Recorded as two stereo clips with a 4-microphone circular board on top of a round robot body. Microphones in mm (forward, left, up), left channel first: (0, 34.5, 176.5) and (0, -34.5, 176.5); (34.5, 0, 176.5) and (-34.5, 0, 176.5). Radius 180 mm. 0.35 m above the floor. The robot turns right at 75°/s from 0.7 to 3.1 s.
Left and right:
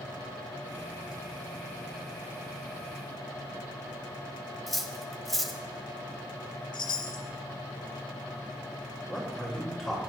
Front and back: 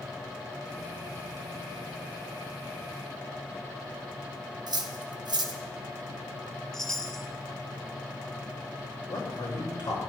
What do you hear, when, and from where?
4.7 s cutlery clinking: 175° left, 1.6 m
6.7 s a chime: 85° left, 0.5 m
9.1 s a man speaking: 5° left, 6.5 m